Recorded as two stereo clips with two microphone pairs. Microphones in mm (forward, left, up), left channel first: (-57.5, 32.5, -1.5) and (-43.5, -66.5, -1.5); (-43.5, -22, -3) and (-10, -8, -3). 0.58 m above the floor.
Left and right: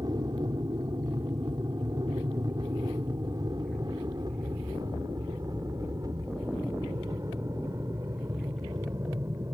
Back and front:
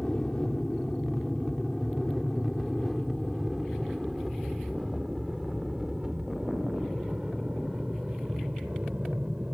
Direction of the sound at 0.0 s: 90° right.